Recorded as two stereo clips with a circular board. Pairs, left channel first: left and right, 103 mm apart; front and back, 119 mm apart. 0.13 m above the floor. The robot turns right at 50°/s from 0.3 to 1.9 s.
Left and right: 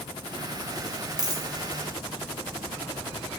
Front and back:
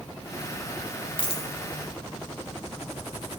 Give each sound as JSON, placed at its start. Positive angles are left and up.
{"t": 1.2, "sound": "a dropped coin", "azimuth_deg": -45, "distance_m": 1.4}